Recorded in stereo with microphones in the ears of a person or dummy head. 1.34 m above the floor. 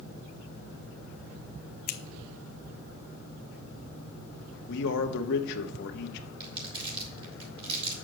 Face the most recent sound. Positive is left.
turn(degrees=-30)  # may be behind; listen again after turning